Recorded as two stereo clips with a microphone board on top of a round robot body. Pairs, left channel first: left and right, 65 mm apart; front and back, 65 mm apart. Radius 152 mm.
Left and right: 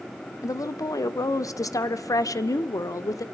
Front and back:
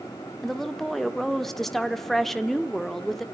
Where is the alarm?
No alarm in this recording.